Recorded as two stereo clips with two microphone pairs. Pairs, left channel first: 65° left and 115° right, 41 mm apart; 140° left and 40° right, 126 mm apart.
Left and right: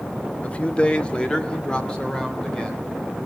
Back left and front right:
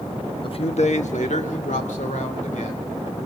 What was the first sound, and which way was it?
A man speaking, 105° left.